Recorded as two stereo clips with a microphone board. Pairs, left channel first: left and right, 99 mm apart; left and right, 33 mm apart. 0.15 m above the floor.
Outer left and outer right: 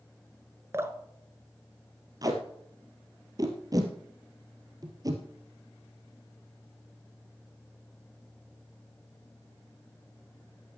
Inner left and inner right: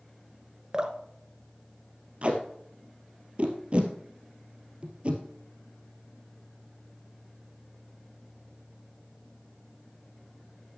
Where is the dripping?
25° right (ahead or behind), 0.9 m.